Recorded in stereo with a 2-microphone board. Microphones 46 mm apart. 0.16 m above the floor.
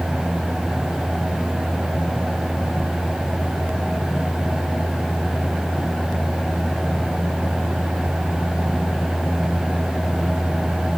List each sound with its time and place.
Only background noise.